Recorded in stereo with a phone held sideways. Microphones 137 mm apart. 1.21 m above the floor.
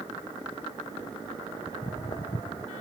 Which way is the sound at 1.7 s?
35° left (ahead or behind).